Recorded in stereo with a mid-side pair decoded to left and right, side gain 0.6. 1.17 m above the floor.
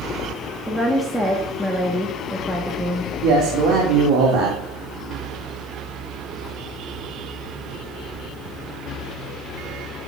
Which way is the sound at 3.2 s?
55° right.